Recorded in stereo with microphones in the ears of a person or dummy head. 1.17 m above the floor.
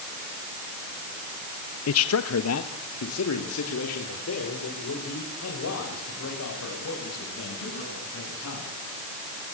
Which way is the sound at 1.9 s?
70° left (ahead or behind).